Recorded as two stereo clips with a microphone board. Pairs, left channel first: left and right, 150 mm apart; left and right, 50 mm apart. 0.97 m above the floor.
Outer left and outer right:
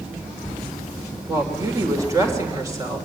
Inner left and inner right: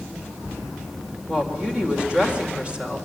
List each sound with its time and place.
1.3 s a woman speaking: 20° right (ahead or behind), 4 m